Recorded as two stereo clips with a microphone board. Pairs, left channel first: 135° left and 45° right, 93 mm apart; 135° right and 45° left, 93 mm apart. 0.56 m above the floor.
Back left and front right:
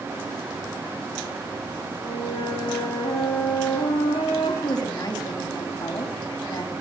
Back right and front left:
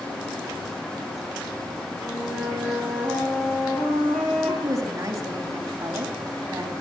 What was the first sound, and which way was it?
A flute, 135° left.